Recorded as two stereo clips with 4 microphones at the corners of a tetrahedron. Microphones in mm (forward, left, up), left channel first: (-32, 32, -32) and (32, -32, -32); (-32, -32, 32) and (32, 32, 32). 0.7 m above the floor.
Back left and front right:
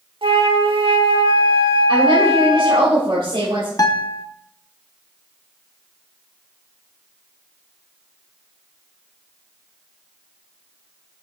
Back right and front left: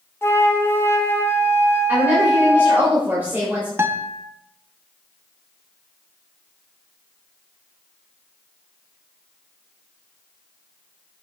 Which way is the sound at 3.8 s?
105° left.